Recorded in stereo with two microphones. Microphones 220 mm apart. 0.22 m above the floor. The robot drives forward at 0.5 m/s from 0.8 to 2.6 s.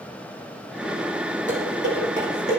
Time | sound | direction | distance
1.5 | dishes clattering | 35° right (ahead or behind) | 7.5 m